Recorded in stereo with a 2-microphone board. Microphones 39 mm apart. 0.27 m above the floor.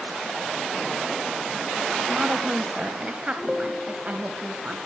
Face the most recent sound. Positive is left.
turn(degrees=-30)  # may be behind; listen again after turning